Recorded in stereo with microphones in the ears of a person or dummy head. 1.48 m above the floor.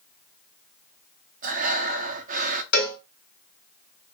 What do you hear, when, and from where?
1.4 s breathing: 40° right (ahead or behind), 0.6 m
2.7 s a cowbell: 60° left (ahead or behind), 2 m